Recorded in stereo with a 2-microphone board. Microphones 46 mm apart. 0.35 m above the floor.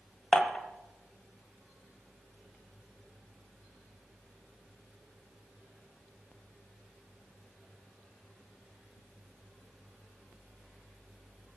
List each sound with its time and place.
0.3 s dishes clattering: 15° left (ahead or behind), 1.1 m